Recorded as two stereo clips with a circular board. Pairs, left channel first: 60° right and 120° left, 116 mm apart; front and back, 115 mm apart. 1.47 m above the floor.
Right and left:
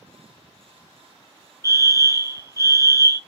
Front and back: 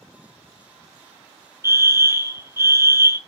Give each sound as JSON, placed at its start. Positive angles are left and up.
{"t": 1.6, "sound": "a fire alarm", "azimuth_deg": 140, "distance_m": 0.9}